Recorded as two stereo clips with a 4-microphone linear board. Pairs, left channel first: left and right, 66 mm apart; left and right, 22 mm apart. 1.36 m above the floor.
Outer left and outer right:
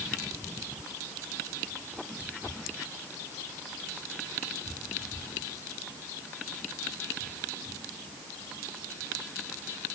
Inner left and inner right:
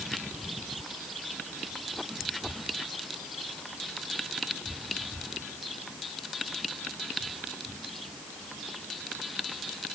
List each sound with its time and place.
Only background noise.